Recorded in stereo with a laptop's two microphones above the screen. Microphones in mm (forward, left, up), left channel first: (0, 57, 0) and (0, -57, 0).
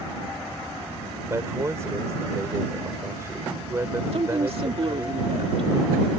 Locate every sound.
1.3 s a man speaking: 25° right (ahead or behind)
4.1 s a woman speaking: 55° right (ahead or behind)